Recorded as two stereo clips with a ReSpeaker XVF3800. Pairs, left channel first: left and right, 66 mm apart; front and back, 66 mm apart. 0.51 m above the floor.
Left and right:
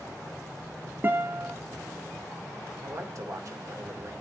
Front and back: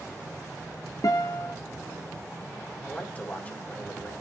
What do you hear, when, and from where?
1.0 s a guitar: 30° right, 1.1 m
2.8 s a man speaking: 65° right, 1.9 m